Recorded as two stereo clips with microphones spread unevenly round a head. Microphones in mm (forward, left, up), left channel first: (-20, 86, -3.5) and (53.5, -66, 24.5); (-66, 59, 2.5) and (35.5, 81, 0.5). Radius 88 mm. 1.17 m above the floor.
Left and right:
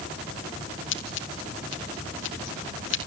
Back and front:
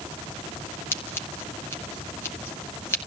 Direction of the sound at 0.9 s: 125° left.